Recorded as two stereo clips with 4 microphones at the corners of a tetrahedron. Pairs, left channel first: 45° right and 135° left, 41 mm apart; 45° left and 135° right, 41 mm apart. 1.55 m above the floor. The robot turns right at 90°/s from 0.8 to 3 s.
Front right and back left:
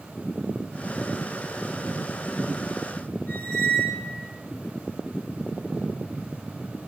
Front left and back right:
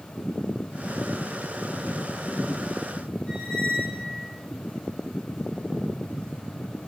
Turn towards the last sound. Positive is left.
turn(degrees=-15)